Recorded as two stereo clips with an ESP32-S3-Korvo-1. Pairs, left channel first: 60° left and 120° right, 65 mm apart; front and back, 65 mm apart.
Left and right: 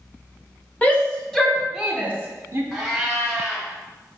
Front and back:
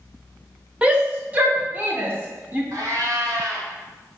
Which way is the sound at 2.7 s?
155° left.